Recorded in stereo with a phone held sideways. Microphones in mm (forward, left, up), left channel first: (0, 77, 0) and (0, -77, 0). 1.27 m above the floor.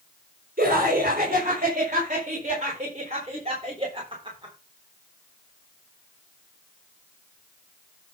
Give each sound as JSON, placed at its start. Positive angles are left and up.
{"t": 0.6, "sound": "laughter", "side_deg": -65, "distance_m": 4.5}